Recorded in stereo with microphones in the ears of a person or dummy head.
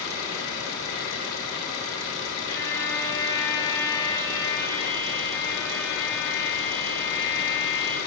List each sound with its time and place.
0.0 s an engine running: 75° left (ahead or behind), 3.5 m
2.5 s a violin: 15° left (ahead or behind), 1.6 m